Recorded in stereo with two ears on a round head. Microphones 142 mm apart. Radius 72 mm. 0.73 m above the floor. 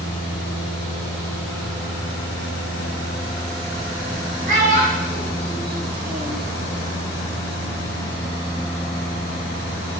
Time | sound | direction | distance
4.5 | a child speaking | 50° right (ahead or behind) | 2 m